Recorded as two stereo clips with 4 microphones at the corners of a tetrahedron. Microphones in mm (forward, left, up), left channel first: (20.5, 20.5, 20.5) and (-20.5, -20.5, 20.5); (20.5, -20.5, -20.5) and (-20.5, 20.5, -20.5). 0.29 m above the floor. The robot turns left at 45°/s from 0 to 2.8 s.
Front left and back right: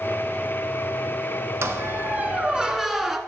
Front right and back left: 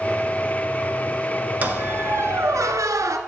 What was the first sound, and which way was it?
A squeak, 165° right.